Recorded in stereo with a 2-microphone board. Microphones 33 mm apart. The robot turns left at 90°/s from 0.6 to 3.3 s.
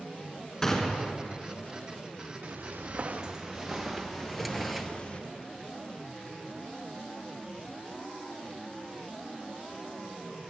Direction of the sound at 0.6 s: 15° left (ahead or behind).